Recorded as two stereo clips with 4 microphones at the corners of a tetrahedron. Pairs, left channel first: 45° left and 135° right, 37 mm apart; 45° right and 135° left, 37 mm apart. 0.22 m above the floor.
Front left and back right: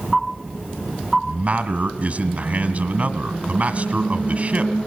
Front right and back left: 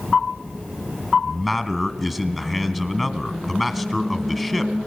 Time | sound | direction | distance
1.2 | a man speaking | 135° right | 1.5 m